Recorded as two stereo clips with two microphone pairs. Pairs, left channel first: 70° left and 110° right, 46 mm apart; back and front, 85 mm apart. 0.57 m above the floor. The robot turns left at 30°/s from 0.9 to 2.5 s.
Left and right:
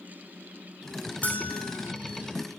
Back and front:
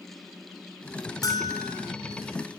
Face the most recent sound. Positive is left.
turn(degrees=95)